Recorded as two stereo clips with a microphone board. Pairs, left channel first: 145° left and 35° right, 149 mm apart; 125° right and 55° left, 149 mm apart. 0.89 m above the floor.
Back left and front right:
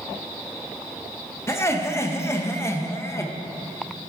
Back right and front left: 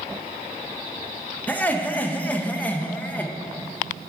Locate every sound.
1.5 s laughter: 175° left, 0.7 m